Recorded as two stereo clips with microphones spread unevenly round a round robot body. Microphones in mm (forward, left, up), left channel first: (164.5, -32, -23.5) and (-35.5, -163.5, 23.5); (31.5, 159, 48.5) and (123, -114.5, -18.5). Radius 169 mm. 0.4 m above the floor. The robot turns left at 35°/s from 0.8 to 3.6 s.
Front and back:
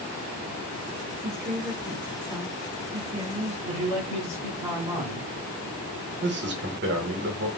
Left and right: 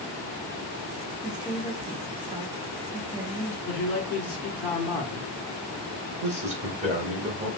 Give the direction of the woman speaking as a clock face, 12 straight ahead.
1 o'clock.